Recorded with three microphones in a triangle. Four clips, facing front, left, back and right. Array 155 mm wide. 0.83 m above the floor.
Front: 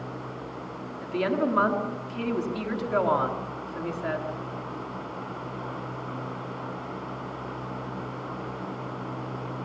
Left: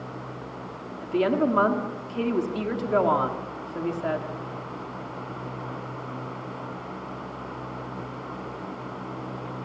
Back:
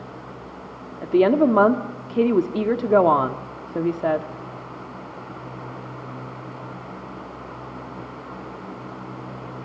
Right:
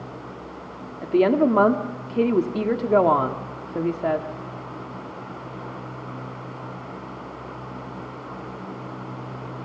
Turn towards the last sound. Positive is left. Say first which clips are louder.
# right 5 dB, back 10 dB
turn(degrees=-155)